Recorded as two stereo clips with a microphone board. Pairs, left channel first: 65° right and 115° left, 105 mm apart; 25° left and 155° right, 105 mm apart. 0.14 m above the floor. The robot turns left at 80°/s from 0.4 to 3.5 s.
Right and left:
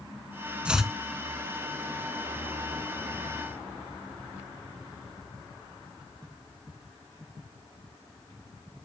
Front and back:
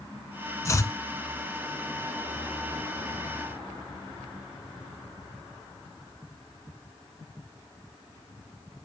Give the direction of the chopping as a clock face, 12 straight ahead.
11 o'clock.